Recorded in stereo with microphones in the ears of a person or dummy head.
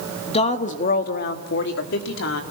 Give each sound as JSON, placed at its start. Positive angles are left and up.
{"t": 0.3, "sound": "a woman speaking", "side_deg": 30, "distance_m": 2.0}